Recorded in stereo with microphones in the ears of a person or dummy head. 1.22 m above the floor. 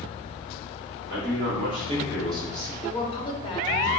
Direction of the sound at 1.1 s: 65° right (ahead or behind).